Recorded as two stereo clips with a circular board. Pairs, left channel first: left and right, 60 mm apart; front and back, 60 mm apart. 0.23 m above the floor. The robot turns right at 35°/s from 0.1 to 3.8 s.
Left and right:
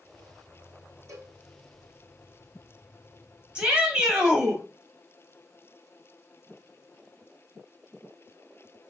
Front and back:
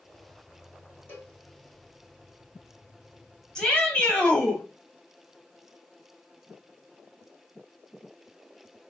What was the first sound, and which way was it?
A cowbell, 55° right.